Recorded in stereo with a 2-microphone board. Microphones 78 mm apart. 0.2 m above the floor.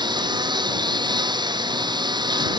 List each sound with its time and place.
0.0 s a lawn mower: 70° right (ahead or behind)